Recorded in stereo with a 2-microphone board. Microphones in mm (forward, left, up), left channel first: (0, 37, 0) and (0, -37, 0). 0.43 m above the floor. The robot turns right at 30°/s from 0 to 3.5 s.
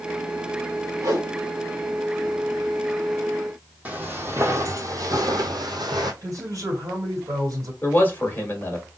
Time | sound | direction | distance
1.0 | a whoosh | 55° right (ahead or behind) | 1.6 m
3.9 | footsteps | 20° right (ahead or behind) | 1.1 m
6.2 | a man speaking | 50° right (ahead or behind) | 1.9 m
7.8 | a man speaking | 25° left (ahead or behind) | 1.4 m